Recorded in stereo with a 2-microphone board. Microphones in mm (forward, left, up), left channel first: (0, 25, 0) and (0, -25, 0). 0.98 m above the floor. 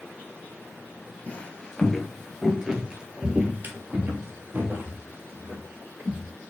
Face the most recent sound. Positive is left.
turn(degrees=-70)  # may be behind; listen again after turning